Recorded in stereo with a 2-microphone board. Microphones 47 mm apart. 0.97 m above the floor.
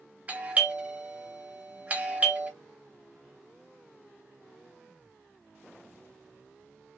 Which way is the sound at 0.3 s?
30° right (ahead or behind).